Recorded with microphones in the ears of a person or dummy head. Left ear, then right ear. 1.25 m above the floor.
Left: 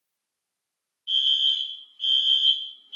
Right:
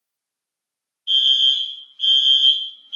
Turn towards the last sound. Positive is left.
turn(degrees=-30)  # may be behind; listen again after turning